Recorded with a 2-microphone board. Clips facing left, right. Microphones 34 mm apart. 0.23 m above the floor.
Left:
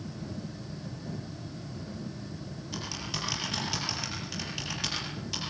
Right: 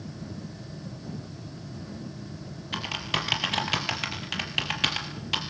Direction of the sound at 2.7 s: 50° right (ahead or behind).